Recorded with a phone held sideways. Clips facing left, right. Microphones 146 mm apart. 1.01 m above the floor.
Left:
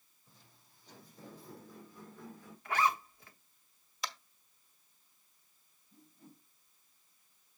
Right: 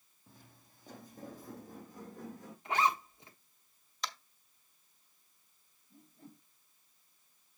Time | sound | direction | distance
0.3 | footsteps | 55° right (ahead or behind) | 3 m
2.6 | a zipper | 20° right (ahead or behind) | 1.4 m
4.0 | tapping | 5° left (ahead or behind) | 1.7 m
5.9 | a whoosh | 50° right (ahead or behind) | 4.5 m